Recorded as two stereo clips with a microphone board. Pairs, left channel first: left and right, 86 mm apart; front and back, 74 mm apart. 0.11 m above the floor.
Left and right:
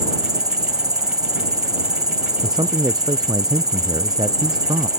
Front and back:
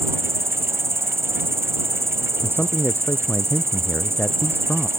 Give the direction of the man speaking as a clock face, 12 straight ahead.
2 o'clock.